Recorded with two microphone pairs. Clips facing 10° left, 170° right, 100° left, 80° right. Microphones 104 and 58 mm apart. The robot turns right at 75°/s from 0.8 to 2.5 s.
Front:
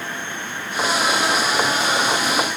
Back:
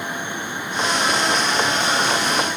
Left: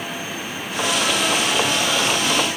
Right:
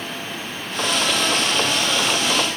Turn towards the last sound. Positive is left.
No sound to turn to.